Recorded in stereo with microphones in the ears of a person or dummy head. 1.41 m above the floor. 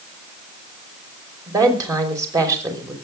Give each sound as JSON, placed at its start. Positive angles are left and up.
{"t": 1.5, "sound": "a woman speaking", "side_deg": -15, "distance_m": 5.0}